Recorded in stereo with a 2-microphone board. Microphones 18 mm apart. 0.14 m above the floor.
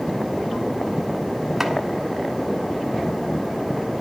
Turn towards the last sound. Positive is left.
turn(degrees=-15)  # may be behind; listen again after turning